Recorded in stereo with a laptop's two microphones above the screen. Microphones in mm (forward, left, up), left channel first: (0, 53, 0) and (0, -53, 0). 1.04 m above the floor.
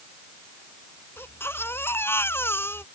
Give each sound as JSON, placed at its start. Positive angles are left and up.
{"t": 1.2, "sound": "a baby crying", "side_deg": 20}